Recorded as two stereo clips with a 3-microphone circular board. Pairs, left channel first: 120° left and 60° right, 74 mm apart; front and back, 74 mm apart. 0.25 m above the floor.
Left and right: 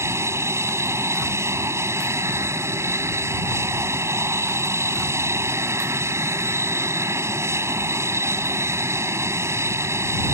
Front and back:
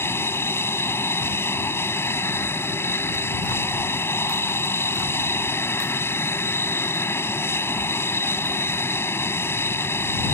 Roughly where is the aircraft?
Ahead right.